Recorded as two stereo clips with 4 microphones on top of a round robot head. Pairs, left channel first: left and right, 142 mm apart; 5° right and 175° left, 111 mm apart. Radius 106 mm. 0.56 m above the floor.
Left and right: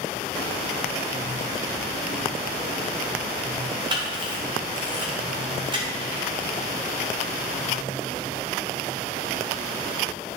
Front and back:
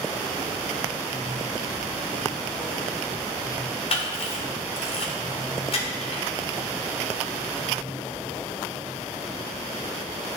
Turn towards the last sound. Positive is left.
turn(degrees=-35)